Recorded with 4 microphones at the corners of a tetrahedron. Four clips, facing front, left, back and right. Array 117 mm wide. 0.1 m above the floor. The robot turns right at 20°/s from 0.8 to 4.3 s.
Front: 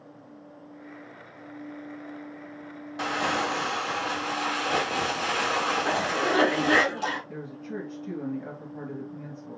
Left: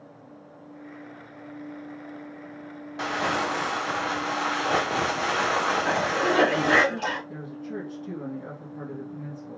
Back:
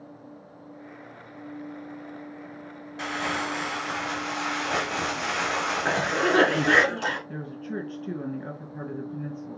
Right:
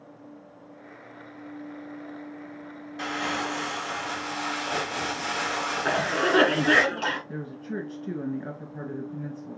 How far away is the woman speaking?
About 1.5 m.